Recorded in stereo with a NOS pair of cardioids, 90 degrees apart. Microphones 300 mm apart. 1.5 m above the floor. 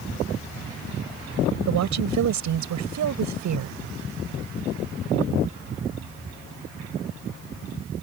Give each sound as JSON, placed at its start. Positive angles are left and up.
{"t": 1.7, "sound": "a woman speaking", "azimuth_deg": -70}